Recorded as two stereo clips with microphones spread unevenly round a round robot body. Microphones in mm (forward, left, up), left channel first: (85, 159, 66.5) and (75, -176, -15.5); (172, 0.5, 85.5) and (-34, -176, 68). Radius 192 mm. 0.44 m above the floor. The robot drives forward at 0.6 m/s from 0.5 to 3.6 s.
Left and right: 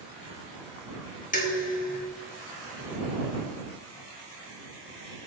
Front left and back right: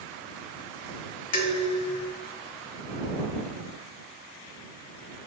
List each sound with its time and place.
1.3 s dishes clattering: 20° left, 3 m; by 2.1 s 25° left, 2.5 m